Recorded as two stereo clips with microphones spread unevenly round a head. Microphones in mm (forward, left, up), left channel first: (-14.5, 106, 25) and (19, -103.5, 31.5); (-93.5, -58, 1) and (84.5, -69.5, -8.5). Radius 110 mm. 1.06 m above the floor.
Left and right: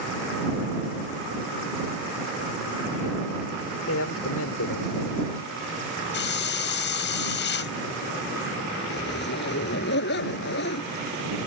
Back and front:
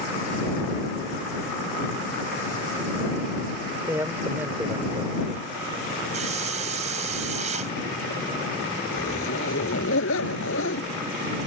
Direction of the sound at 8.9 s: 140° left.